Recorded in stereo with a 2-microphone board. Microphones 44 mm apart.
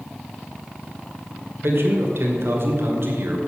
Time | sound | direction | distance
1.6 | a man speaking | 70° right (ahead or behind) | 2 m